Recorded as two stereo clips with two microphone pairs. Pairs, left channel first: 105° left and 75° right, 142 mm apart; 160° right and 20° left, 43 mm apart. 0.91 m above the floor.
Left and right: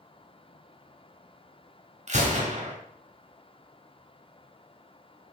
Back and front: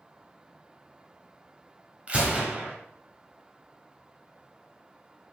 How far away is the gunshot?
About 2 m.